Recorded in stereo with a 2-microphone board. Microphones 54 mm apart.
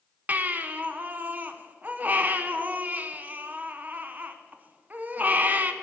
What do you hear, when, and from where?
0.3 s a baby crying: 35° right (ahead or behind), 0.5 m